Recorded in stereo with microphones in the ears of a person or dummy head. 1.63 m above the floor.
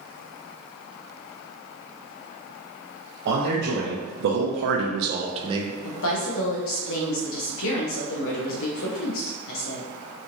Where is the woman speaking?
70° left (ahead or behind), 1.1 m.